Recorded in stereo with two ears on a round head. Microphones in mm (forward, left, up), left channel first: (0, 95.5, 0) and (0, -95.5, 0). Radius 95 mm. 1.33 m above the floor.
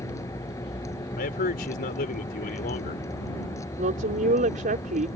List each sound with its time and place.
0.0 s a vehicle: 15° left (ahead or behind)
1.2 s a man speaking: 40° left (ahead or behind)
3.8 s a woman speaking: 35° right (ahead or behind)